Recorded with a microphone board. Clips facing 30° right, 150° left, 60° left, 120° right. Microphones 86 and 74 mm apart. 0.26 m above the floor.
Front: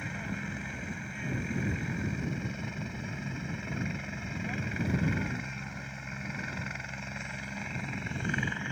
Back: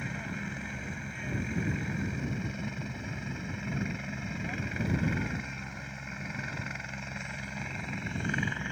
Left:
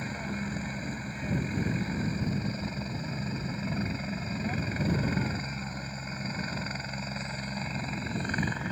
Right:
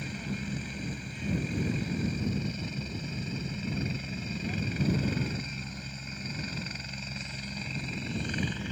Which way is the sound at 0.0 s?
60° left.